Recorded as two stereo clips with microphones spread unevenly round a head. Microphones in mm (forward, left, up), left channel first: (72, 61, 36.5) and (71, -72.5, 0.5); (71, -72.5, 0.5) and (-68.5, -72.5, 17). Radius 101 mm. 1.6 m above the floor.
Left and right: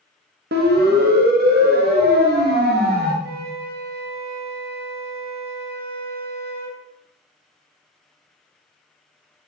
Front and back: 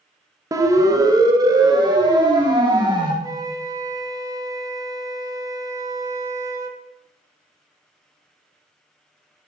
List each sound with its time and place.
0.5 s a siren: 115° right, 2 m; by 3.1 s 120° right, 4 m
3.2 s a flute: 125° right, 2.5 m